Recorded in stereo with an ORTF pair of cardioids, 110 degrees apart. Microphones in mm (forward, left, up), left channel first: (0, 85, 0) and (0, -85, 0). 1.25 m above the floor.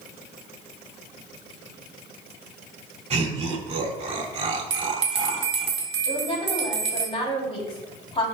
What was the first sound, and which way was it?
Laughter, 35° right.